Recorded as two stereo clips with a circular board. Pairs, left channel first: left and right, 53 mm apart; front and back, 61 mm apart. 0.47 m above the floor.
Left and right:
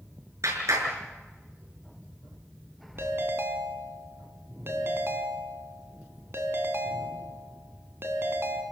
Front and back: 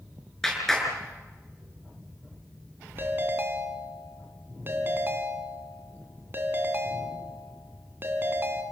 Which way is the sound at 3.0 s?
130° right.